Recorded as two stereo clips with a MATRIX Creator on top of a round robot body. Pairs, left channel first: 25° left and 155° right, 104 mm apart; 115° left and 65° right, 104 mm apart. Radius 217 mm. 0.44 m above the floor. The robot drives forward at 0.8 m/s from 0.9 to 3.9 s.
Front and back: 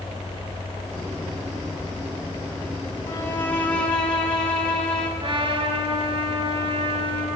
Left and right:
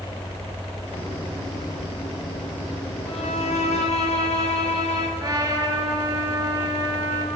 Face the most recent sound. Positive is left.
turn(degrees=-125)